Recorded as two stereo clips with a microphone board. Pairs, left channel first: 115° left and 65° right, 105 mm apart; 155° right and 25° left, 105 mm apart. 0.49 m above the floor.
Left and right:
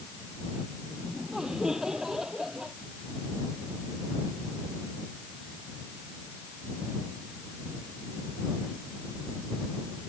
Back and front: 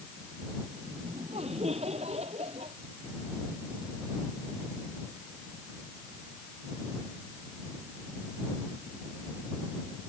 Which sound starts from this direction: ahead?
Laughter, at 0.9 s.